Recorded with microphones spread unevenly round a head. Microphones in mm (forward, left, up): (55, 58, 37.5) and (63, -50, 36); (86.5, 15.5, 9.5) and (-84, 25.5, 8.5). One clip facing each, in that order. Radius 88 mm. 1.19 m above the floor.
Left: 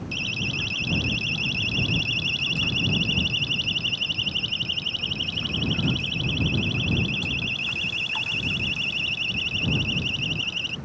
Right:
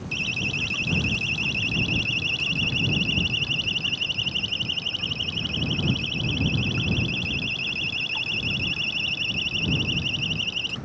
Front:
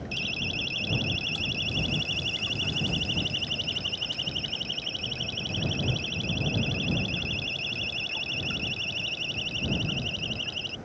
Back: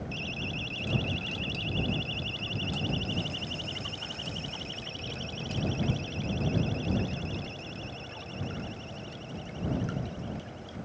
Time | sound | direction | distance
0.1 | a siren | 50° right | ?